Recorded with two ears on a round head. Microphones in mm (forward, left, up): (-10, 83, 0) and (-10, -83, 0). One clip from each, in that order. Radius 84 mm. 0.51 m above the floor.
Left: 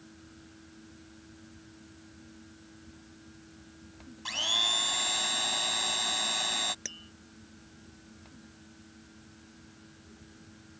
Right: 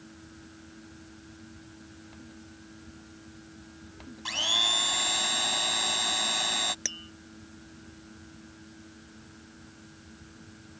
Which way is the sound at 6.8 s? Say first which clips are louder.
Right 7 dB; 20° right (ahead or behind).